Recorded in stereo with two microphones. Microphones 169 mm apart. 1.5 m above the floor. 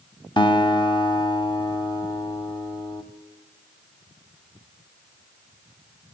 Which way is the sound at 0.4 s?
30° left (ahead or behind).